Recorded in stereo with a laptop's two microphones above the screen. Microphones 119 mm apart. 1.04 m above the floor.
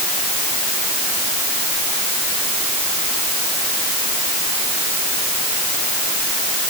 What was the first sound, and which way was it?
Only background noise.